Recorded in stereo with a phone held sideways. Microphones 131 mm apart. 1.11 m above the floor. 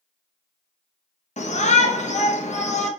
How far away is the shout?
About 0.8 m.